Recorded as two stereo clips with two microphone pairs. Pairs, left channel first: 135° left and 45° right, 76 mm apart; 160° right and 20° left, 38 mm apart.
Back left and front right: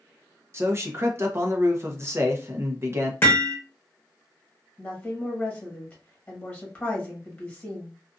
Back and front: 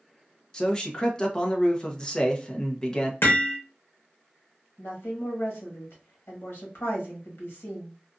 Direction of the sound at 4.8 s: 150° right.